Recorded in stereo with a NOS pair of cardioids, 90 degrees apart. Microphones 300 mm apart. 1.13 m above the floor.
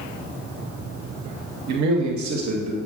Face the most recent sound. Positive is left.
turn(degrees=-65)